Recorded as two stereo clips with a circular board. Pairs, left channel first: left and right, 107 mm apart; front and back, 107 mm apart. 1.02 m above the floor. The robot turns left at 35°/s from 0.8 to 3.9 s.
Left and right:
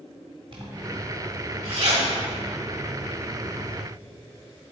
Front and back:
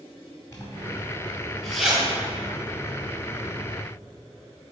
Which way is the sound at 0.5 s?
55° right.